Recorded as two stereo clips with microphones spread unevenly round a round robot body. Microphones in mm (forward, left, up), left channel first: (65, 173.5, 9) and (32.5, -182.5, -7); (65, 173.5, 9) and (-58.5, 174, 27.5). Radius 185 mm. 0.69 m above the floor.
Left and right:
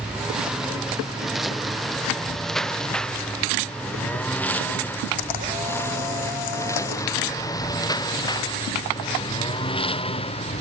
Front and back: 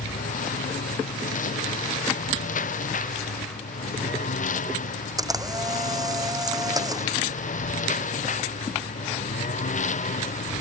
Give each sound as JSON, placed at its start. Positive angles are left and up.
{"t": 0.0, "sound": "a lawn mower", "azimuth_deg": -10}
{"t": 5.2, "sound": "a camera shutter", "azimuth_deg": 120}